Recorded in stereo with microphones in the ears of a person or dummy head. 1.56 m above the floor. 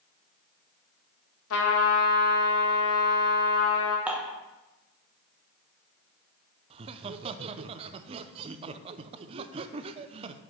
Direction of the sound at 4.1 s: 5° right (ahead or behind).